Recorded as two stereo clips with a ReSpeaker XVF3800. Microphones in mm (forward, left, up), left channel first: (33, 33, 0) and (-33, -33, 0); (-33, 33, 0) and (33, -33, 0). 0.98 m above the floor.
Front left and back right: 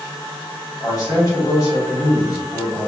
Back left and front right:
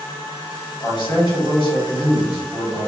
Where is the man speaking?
95° left, 1.8 m.